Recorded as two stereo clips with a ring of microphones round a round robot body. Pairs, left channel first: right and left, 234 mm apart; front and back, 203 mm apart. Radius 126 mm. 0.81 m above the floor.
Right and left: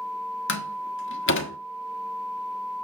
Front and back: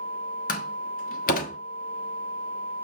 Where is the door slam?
55° right, 1.3 m.